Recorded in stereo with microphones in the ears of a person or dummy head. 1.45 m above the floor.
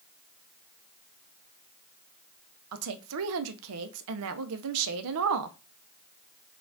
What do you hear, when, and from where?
2.7 s a woman speaking: 80° right, 0.5 m